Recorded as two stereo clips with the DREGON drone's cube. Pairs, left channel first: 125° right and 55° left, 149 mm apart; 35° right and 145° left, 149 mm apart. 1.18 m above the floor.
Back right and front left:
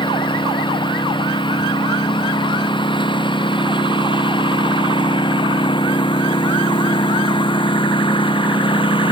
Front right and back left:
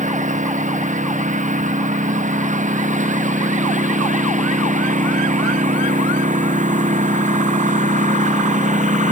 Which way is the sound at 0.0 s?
Straight behind.